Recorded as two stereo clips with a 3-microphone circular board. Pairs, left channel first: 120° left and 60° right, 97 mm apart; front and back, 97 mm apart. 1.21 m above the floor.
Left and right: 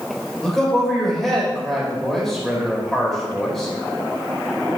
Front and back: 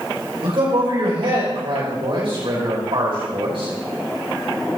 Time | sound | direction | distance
0.4 | a man speaking | 150° right | 5 m